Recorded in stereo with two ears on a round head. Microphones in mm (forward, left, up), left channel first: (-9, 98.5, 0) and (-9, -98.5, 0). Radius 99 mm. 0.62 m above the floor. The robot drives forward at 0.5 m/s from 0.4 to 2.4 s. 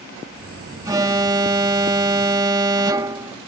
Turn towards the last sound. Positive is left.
turn(degrees=-15)  # may be behind; listen again after turning